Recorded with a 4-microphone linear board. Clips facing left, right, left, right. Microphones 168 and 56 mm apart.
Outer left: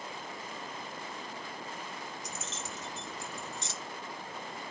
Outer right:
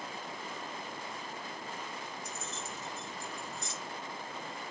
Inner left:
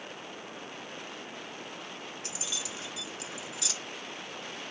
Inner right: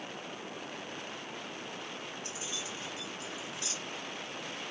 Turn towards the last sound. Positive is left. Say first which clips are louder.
# even, inner left 1 dB
turn(degrees=80)